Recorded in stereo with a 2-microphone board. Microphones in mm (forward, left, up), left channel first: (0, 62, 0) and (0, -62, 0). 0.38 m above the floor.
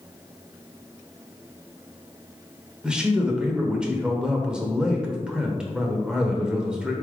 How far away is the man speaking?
About 0.9 m.